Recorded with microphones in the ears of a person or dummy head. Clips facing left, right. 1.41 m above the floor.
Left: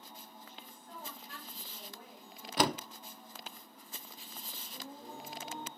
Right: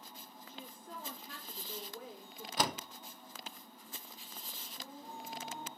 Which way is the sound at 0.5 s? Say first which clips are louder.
Right 7 dB; 85° right.